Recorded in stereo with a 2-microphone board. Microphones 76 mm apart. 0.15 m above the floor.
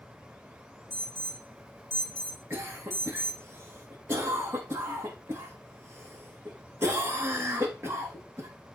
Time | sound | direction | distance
0.9 | an alarm | 35° right (ahead or behind) | 3 m
2.5 | a cough | 35° right (ahead or behind) | 6.5 m